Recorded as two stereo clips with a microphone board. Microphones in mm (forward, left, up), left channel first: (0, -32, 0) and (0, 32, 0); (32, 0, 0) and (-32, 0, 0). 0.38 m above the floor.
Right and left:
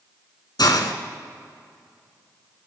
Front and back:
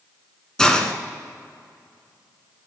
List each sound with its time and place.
0.6 s a hiss: 80° right, 1.1 m